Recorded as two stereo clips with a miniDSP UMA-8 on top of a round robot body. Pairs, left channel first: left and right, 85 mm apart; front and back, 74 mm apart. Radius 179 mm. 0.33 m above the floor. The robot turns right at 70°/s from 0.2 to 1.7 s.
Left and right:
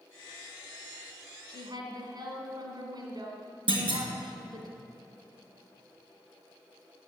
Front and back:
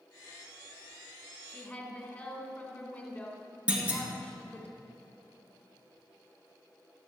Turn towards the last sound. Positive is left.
turn(degrees=-105)